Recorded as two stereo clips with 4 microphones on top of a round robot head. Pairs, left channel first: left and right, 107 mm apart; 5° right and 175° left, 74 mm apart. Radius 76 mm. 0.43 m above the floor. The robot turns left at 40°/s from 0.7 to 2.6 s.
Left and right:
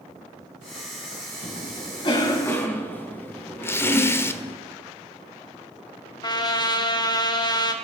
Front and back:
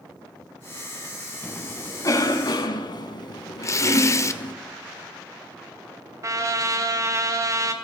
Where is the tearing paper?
25° left, 1.4 m.